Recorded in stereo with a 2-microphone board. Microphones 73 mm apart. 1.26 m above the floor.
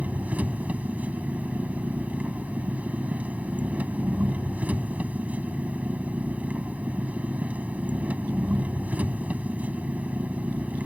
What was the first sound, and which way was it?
An engine running, 20° right (ahead or behind).